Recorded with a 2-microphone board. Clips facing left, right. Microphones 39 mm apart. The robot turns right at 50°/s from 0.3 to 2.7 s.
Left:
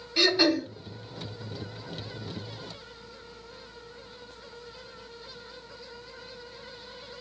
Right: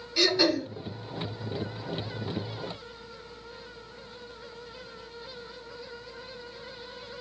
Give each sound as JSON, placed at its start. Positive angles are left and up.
{"t": 0.2, "sound": "throat clearing", "side_deg": 15, "distance_m": 1.0}